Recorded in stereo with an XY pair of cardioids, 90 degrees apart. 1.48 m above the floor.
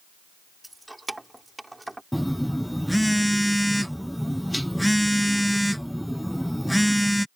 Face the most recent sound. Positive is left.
turn(degrees=0)